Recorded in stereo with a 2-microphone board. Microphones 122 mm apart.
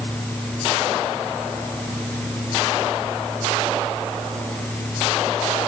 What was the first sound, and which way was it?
Only background noise.